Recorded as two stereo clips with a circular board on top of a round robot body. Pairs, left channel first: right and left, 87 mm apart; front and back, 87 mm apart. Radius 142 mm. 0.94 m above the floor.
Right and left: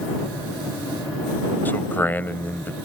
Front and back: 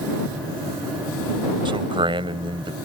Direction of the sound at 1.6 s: 160° right.